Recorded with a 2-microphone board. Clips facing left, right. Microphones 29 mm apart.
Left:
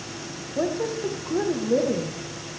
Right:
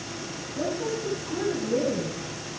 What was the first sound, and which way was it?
A woman speaking, 55° left (ahead or behind).